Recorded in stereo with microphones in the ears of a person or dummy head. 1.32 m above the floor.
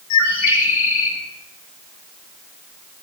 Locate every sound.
0.1 s a bird: 70° left (ahead or behind), 3 m